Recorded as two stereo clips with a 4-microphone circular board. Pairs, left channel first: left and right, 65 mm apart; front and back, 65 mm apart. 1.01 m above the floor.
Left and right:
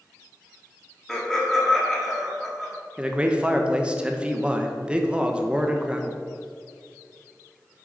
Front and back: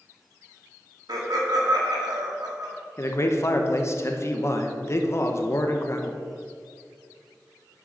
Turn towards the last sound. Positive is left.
turn(degrees=-20)